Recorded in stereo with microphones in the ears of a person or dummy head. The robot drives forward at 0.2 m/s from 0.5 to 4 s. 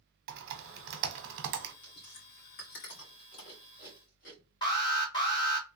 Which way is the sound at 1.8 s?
55° left (ahead or behind).